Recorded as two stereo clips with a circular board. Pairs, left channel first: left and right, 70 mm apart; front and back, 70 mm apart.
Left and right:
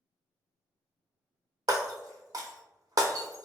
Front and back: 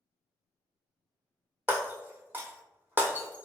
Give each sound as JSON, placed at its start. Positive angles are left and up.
{"t": 1.7, "sound": "breaking glass", "azimuth_deg": -120, "distance_m": 0.6}